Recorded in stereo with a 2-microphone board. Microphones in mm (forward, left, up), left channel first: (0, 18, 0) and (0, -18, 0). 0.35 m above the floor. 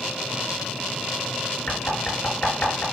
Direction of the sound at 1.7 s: 50° left (ahead or behind).